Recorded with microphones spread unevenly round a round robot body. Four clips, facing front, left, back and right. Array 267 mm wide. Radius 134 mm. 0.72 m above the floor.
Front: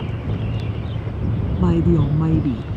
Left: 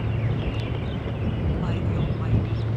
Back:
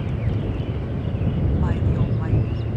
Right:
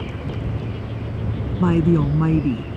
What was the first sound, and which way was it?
A woman speaking, 55° right.